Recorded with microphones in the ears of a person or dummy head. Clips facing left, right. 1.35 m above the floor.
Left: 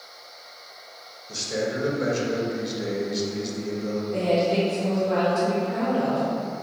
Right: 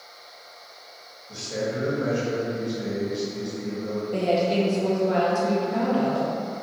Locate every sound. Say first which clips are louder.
1.3 s a man speaking: left 1 dB; 25° left (ahead or behind), 0.8 m
4.1 s a woman speaking: even; 40° right (ahead or behind), 1.3 m